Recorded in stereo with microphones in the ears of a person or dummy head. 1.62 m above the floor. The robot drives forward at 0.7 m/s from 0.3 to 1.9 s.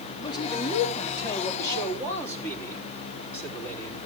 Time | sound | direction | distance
0.2 | a man speaking | 25° left (ahead or behind) | 3 m